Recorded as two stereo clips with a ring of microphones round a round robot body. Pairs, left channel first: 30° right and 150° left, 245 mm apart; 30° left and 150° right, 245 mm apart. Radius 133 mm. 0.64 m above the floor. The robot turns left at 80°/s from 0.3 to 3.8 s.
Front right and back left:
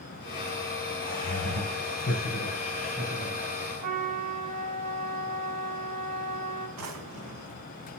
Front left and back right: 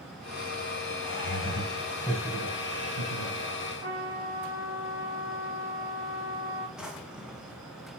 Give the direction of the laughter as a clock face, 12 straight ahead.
11 o'clock.